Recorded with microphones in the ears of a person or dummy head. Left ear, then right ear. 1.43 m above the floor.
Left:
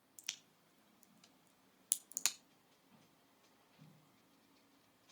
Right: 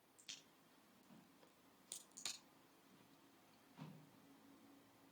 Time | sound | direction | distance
0.2 | a crack | 55° left (ahead or behind) | 0.9 m